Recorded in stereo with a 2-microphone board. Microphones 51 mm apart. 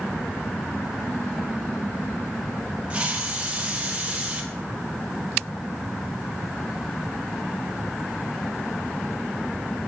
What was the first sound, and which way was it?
A hiss, 20° right (ahead or behind).